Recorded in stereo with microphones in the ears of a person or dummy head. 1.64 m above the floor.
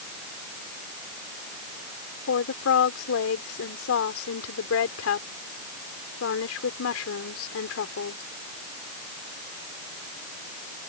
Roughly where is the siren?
No siren in this recording.